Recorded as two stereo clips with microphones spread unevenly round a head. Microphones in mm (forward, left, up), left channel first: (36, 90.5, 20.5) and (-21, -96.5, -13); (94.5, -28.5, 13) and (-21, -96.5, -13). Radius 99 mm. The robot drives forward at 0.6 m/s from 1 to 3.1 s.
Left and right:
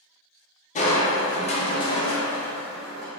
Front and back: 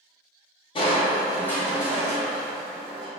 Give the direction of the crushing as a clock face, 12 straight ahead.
10 o'clock.